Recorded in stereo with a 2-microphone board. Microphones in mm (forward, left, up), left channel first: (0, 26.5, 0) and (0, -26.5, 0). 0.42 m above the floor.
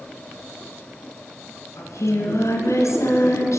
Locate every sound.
1.8 s singing: 70° left (ahead or behind), 1.7 m